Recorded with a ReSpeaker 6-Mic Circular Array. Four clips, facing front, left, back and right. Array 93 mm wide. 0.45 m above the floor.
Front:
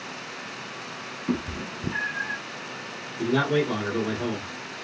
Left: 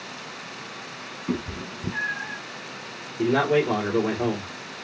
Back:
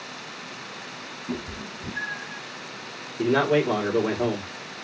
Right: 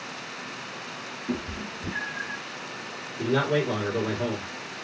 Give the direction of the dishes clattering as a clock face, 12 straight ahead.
I don't hear dishes clattering.